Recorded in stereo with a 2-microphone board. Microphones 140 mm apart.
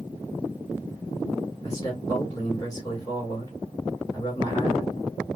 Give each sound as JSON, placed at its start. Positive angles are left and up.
{"t": 1.6, "sound": "a man speaking", "side_deg": 25, "distance_m": 2.5}